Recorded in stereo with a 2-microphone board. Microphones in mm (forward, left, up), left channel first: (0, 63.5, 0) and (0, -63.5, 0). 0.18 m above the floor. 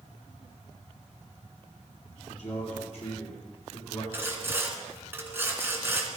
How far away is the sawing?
About 2.5 m.